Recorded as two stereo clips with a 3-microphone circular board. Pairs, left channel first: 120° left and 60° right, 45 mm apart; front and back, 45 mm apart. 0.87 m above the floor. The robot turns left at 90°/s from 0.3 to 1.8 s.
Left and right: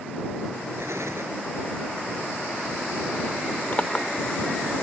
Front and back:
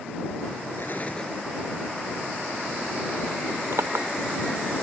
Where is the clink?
Straight behind.